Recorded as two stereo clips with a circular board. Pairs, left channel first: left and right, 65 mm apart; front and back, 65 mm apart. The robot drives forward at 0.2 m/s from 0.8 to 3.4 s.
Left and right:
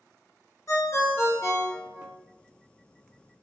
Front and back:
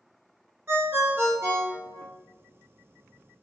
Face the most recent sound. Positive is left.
turn(degrees=150)